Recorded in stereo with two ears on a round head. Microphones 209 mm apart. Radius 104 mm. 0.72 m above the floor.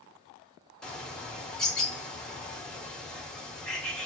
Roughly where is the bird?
Centre.